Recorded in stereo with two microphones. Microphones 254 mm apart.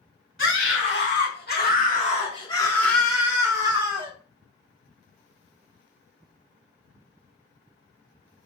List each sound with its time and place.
0.4 s a scream: 55° left (ahead or behind), 1.8 m; by 4.1 s 25° right (ahead or behind), 1.4 m